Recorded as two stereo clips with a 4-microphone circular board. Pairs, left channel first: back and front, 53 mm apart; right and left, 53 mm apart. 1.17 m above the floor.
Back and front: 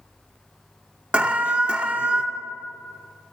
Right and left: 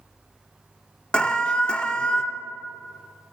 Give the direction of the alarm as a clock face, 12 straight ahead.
1 o'clock.